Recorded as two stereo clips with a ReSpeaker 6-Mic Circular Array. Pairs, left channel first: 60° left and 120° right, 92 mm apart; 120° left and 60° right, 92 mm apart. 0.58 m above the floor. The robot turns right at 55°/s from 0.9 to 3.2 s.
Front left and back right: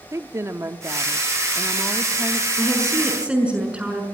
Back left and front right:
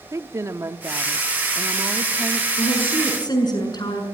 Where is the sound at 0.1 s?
85° right, 0.8 m; by 2.5 s straight ahead, 0.8 m.